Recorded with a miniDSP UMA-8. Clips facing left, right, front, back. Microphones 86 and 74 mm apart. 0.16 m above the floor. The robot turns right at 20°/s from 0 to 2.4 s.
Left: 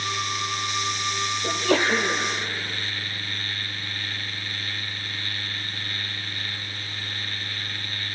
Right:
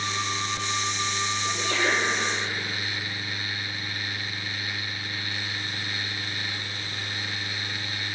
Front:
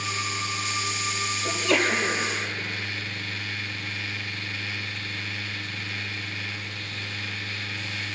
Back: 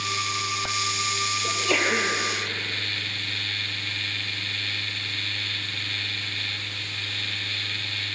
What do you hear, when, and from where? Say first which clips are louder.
1.4 s a sneeze: left 6 dB, front 2 dB; 90° left, 4.5 m; by 2.2 s 105° left, 4.5 m